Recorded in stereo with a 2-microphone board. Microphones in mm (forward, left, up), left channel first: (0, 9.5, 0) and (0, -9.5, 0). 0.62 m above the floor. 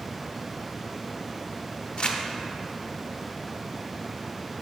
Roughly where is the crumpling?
Left.